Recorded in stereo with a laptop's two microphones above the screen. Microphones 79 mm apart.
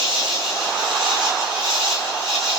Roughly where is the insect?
Centre.